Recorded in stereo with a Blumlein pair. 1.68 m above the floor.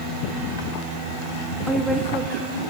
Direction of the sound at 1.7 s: Straight ahead.